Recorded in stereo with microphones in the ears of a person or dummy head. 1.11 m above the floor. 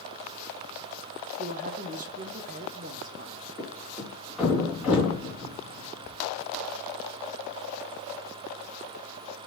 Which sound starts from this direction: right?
A woman speaking, at 1.4 s.